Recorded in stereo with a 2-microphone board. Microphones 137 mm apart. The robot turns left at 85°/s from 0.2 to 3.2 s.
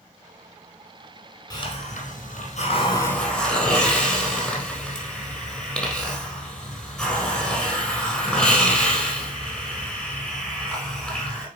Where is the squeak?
No squeak in this recording.